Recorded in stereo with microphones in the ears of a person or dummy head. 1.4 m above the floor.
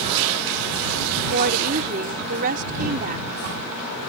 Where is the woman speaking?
45° right (ahead or behind).